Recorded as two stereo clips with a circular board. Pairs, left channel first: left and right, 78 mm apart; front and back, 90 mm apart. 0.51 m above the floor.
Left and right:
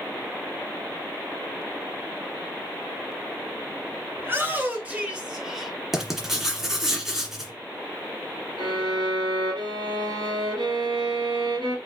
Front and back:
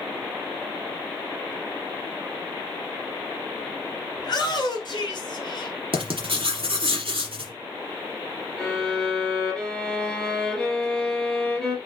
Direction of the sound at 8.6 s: 85° right.